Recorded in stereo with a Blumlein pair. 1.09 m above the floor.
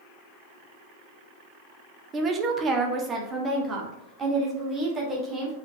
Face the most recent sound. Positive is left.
turn(degrees=-15)